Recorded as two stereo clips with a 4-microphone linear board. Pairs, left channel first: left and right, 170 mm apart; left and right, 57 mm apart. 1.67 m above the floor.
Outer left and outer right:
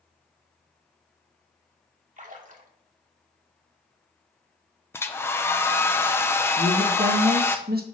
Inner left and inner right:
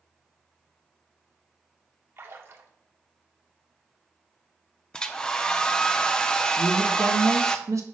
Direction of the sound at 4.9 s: 15° left (ahead or behind).